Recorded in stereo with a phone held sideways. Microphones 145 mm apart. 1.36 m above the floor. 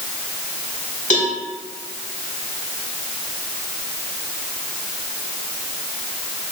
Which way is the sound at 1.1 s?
55° left (ahead or behind).